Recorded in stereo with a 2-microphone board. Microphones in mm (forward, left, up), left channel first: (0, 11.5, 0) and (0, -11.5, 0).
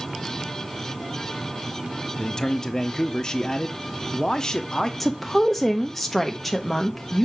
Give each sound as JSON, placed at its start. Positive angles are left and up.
{"t": 2.2, "sound": "a man speaking", "side_deg": 35, "distance_m": 0.7}
{"t": 5.0, "sound": "a woman speaking", "side_deg": 10, "distance_m": 0.7}